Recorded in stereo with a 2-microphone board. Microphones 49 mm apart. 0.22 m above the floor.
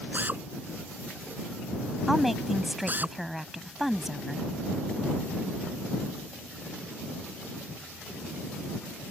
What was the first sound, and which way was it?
A drill, 40° right (ahead or behind).